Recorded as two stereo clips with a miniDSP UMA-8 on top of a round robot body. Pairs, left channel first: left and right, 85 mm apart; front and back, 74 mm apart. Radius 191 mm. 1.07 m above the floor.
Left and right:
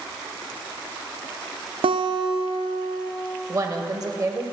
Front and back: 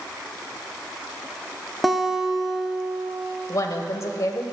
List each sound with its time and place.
1.8 s a guitar: 90° right, 0.6 m
3.5 s a woman speaking: 45° right, 0.8 m